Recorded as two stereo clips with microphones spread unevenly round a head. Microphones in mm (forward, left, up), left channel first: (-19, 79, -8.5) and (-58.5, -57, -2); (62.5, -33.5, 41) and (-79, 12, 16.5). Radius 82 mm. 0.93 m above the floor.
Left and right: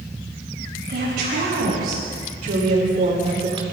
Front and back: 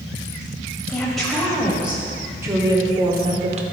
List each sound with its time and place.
0.9 s a woman speaking: 105° right, 5 m; by 3.6 s 160° right, 3 m